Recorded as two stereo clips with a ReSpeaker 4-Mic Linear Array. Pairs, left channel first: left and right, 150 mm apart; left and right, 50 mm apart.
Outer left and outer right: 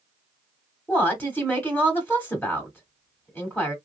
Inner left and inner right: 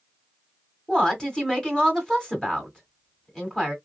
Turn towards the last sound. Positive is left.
turn(degrees=15)  # may be behind; listen again after turning